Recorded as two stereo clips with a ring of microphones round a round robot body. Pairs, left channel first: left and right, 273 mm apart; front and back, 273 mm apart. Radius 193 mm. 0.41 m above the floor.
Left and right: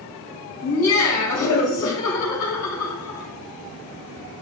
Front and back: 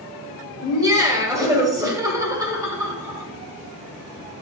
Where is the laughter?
105° left, 2.5 m.